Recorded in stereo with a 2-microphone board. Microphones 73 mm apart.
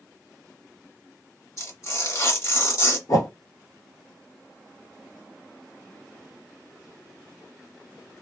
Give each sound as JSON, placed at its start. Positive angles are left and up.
{"t": 1.6, "sound": "tearing paper", "side_deg": 50, "distance_m": 1.8}
{"t": 3.1, "sound": "a whoosh", "side_deg": 55, "distance_m": 1.5}